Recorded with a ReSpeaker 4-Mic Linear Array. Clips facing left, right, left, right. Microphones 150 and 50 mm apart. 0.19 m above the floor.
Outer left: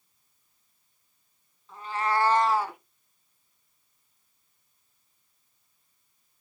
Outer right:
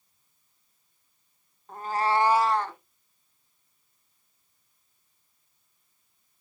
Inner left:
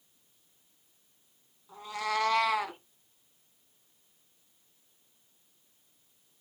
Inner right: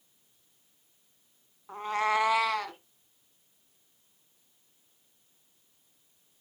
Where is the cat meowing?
55° right (ahead or behind), 0.7 m; by 2.8 s 15° left (ahead or behind), 0.9 m.